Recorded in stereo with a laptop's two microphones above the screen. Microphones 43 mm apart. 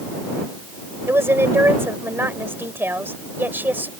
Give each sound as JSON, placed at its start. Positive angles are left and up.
{"t": 1.1, "sound": "a woman speaking", "side_deg": -75}